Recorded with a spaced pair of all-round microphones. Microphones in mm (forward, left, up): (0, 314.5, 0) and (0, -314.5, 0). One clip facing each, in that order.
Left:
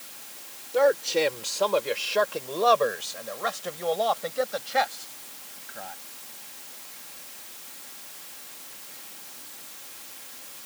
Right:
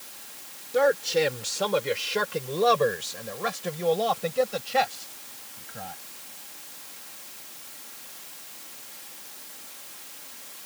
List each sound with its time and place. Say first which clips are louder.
0.7 s a man speaking: even; 40° right (ahead or behind); by 5.9 s 55° right (ahead or behind)